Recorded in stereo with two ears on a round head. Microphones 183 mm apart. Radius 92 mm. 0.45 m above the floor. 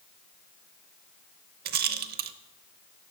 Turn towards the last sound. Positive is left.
turn(degrees=-50)  # may be behind; listen again after turning